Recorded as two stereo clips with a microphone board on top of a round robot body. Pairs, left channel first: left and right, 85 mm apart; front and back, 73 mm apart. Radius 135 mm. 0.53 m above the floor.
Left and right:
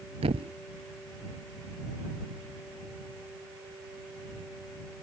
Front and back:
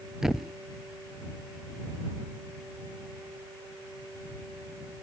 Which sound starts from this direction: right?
A thud, at 0.2 s.